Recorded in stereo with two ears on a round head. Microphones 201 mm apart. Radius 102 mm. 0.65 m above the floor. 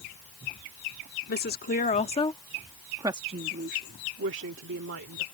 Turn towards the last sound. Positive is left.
turn(degrees=-70)  # may be behind; listen again after turning